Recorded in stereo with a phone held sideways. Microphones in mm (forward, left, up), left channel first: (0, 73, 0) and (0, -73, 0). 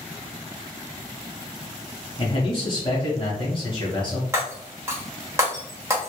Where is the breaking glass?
20° right (ahead or behind), 0.9 m.